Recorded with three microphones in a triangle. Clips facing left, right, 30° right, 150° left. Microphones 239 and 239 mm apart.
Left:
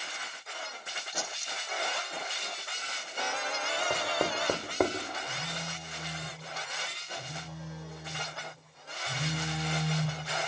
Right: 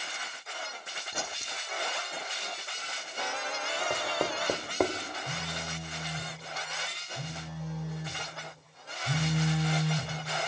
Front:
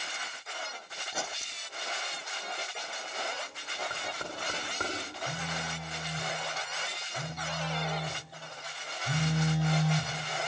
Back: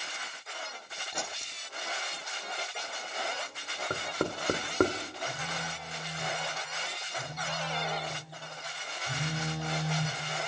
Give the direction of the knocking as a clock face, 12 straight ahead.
6 o'clock.